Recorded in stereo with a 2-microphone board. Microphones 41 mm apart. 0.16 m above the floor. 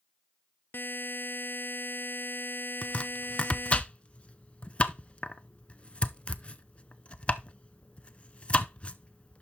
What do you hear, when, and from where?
0.7 s a buzzer: 55° left (ahead or behind), 0.5 m
2.8 s chopping: 30° left (ahead or behind), 0.5 m